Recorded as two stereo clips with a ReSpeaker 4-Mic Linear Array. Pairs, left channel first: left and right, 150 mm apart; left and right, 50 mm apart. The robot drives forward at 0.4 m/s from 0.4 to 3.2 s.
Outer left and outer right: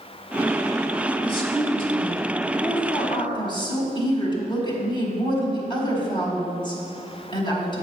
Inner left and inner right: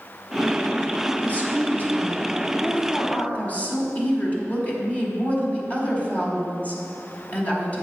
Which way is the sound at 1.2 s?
35° left (ahead or behind).